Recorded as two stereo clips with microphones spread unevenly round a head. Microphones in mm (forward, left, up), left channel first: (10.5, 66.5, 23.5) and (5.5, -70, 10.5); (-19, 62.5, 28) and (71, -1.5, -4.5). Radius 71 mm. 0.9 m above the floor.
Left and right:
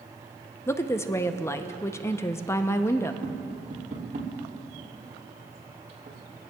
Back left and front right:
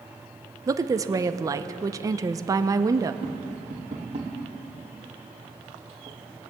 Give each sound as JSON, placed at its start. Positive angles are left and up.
{"t": 0.7, "sound": "a woman speaking", "azimuth_deg": 15, "distance_m": 0.7}
{"t": 3.2, "sound": "tapping", "azimuth_deg": -65, "distance_m": 3.0}